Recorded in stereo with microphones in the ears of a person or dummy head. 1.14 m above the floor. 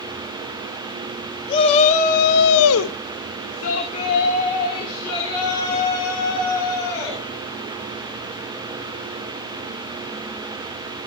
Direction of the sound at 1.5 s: 30° left (ahead or behind).